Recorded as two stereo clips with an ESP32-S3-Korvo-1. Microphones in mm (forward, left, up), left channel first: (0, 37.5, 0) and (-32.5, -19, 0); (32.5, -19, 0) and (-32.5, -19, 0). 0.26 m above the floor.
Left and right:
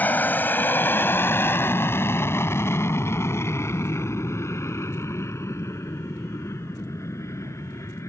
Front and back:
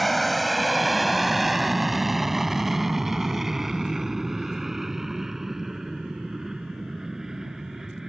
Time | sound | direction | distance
0.0 | an aircraft | 90° left | ?